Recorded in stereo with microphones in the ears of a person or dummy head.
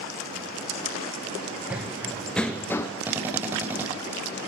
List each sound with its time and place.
1.7 s running footsteps: 5° right (ahead or behind), 3 m; by 2.9 s 15° left (ahead or behind), 3 m
3.1 s a drill: 10° right (ahead or behind), 7 m